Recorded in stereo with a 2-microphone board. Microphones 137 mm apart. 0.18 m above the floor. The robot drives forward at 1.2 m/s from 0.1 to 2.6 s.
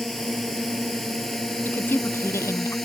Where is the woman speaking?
15° left (ahead or behind); by 2.8 s 20° left (ahead or behind).